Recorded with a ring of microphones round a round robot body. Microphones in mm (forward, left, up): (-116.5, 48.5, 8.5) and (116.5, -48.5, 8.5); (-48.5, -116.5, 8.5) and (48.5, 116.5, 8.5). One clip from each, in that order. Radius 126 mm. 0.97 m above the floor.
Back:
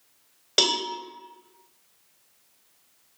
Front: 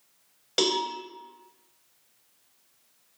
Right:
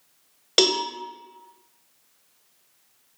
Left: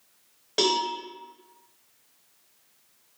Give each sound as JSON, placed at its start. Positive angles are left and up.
{"t": 0.6, "sound": "a cowbell", "azimuth_deg": -125, "distance_m": 1.0}